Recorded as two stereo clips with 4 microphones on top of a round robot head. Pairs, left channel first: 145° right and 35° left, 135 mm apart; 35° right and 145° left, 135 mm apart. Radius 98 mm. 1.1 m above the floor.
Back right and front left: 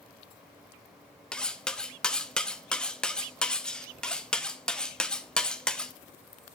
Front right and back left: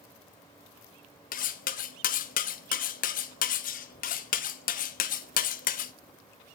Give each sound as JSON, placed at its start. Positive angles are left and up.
{"t": 1.3, "sound": "cutlery clinking", "azimuth_deg": -60, "distance_m": 0.6}